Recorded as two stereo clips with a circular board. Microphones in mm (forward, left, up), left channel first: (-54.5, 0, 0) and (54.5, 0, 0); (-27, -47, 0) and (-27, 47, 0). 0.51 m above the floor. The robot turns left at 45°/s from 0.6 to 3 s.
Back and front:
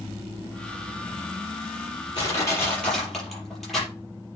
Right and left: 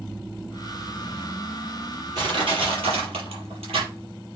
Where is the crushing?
130° left, 5.5 m; by 3.9 s 90° left, 5.5 m.